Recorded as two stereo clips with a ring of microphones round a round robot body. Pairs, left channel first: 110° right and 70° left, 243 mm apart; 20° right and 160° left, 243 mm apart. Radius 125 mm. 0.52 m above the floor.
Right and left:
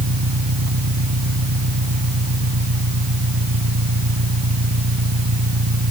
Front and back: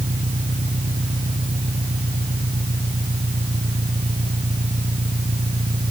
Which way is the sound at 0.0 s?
90° left.